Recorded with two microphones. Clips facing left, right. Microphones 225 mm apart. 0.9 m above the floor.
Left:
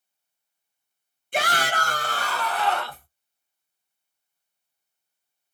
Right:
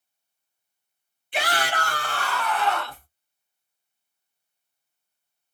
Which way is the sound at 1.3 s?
50° left (ahead or behind).